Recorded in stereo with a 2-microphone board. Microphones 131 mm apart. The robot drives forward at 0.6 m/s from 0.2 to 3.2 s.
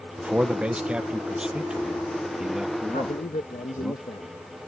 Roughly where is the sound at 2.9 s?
Left.